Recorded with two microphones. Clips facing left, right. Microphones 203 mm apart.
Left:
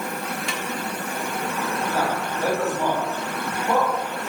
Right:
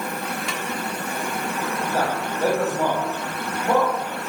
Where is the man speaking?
35° right (ahead or behind), 5.5 m.